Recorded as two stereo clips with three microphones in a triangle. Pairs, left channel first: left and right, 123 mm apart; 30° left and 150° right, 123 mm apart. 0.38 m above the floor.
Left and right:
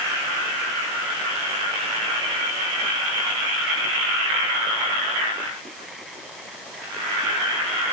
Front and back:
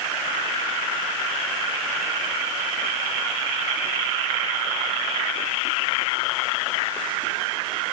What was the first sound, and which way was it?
Only background noise.